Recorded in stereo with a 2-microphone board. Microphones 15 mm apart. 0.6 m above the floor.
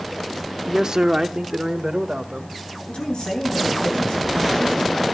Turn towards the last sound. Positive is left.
turn(degrees=80)